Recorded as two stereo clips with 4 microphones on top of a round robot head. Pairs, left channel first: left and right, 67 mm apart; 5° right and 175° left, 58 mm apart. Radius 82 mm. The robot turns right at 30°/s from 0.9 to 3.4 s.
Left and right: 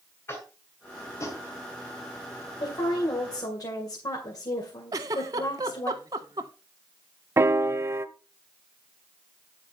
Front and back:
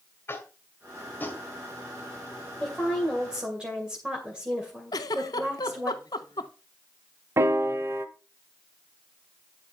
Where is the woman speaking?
75° left, 2.5 m; by 5.9 s 100° left, 2.5 m.